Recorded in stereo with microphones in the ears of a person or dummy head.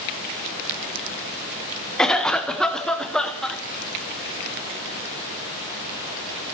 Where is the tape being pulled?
I don't hear tape being pulled.